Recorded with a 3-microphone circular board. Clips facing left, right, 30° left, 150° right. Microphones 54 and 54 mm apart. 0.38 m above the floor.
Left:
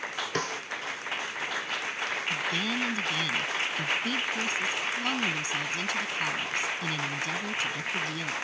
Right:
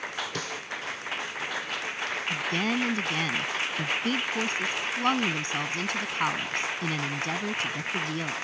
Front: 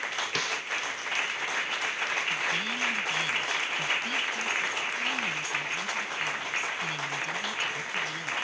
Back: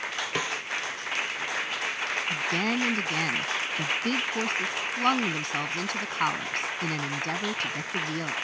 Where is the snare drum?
135° left.